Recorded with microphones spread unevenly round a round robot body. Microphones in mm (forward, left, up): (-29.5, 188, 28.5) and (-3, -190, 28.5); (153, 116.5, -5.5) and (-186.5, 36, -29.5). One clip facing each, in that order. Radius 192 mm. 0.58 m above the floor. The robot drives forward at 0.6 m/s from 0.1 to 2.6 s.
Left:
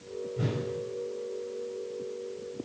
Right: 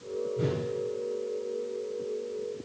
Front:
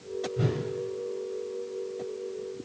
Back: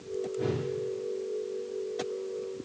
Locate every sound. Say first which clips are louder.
0.4 s a whoosh: right 2 dB, front 1 dB; 20° left, 3 m